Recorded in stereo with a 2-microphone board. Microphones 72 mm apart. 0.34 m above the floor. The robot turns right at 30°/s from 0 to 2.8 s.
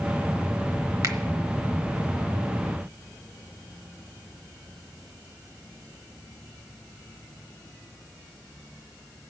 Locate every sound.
1.0 s a finger snap: 50° right (ahead or behind), 1.0 m